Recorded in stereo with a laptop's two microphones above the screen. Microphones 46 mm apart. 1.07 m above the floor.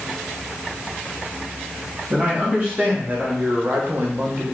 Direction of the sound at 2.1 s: 30° right (ahead or behind).